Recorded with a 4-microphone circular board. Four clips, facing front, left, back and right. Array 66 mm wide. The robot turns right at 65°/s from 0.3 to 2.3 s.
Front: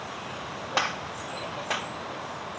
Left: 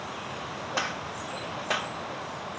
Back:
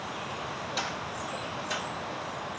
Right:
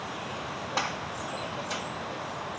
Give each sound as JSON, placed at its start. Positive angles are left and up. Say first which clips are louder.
{"t": 0.8, "sound": "a gunshot", "louder": "even, front 8 dB", "azimuth_deg": 0, "distance_m": 1.1}